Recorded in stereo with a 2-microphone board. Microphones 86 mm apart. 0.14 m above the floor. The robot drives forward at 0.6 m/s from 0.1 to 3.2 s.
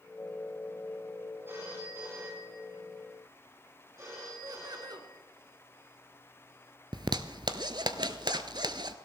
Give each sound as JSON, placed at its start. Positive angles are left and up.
{"t": 1.4, "sound": "a phone ringing", "side_deg": -35, "distance_m": 8.5}
{"t": 4.4, "sound": "laughter", "side_deg": -55, "distance_m": 1.9}
{"t": 6.9, "sound": "a zipper", "side_deg": -60, "distance_m": 0.8}